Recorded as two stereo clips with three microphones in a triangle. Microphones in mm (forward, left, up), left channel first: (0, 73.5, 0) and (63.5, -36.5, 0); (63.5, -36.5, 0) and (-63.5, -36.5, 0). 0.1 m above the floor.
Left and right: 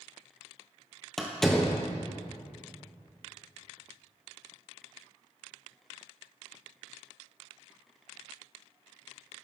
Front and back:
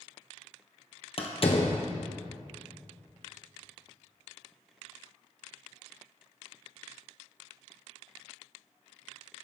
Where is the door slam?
35° left, 1.7 m.